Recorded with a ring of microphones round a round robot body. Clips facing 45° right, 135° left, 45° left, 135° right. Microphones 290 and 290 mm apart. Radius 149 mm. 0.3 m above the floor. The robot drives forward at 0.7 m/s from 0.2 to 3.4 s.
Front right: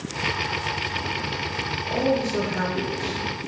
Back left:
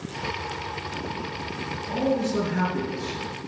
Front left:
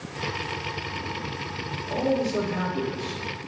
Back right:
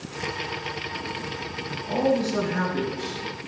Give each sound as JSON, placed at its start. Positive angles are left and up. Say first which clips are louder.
{"t": 1.7, "sound": "a man speaking", "louder": "front right 2 dB, back right 2 dB", "azimuth_deg": -155, "distance_m": 3.5}